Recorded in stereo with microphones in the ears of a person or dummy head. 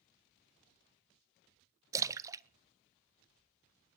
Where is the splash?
15° right (ahead or behind), 0.5 m.